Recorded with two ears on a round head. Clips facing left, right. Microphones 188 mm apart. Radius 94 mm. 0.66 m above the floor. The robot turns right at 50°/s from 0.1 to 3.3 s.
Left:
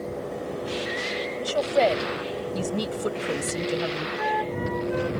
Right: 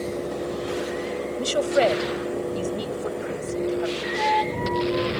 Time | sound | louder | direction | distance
1.4 | a woman speaking | right 1 dB | 35° right | ?
4.2 | a flute | right 3 dB | 15° left (ahead or behind) | ?